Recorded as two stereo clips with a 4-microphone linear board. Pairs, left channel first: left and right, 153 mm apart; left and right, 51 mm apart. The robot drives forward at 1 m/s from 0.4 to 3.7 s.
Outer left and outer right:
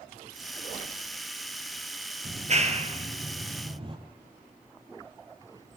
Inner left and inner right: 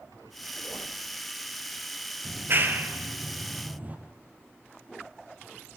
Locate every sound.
2.2 s a clap: 50° right (ahead or behind), 3 m; by 4.0 s 35° right (ahead or behind), 4 m